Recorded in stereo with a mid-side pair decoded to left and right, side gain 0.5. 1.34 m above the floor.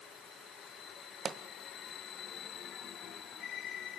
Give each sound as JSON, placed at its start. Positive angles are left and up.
{"t": 1.2, "sound": "a pop", "azimuth_deg": -50, "distance_m": 1.6}